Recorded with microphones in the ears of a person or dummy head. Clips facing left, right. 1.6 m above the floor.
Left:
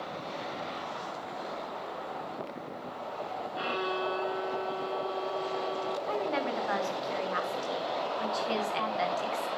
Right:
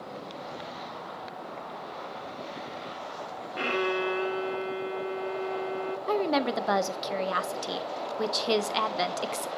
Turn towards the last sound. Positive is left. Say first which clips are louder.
# right 7 dB
turn(degrees=-65)  # may be behind; listen again after turning